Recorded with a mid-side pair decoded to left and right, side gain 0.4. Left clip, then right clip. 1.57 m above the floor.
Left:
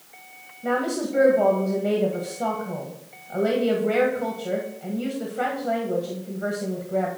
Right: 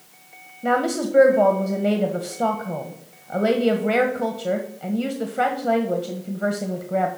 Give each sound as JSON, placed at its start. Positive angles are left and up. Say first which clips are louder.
{"t": 0.6, "sound": "a woman speaking", "louder": "right 4 dB", "azimuth_deg": -60, "distance_m": 1.1}